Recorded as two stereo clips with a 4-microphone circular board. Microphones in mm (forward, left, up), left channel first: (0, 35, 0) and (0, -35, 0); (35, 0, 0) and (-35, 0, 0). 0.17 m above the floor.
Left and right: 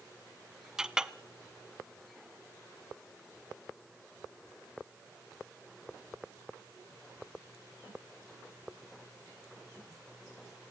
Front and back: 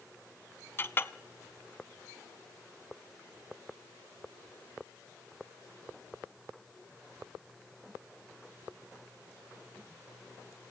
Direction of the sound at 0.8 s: 15° right.